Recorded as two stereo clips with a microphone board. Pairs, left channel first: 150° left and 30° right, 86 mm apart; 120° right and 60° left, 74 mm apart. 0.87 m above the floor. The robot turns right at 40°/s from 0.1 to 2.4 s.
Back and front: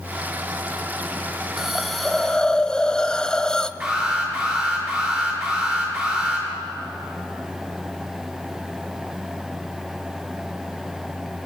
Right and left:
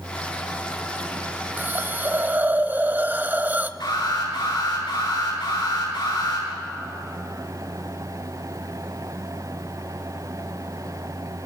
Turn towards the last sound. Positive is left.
turn(degrees=-100)